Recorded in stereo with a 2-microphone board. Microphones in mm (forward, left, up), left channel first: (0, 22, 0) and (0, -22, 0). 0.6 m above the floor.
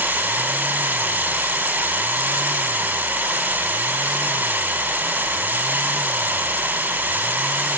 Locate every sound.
0.0 s running water: 45° right (ahead or behind), 4 m